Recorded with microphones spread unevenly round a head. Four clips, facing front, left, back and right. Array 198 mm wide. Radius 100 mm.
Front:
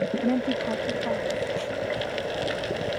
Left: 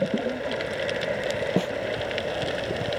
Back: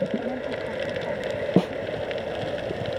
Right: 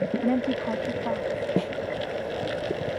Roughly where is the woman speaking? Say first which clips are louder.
Right 3 dB, front 4 dB; ahead right.